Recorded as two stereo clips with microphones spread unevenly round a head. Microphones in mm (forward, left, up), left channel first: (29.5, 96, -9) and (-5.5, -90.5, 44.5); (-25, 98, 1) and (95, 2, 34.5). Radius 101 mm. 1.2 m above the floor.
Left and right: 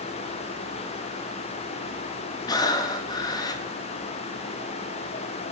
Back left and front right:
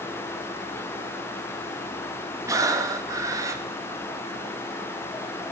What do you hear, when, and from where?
2.5 s breathing: 5° right, 0.6 m